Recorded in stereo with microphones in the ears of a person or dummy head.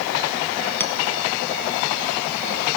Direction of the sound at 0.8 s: 10° left (ahead or behind).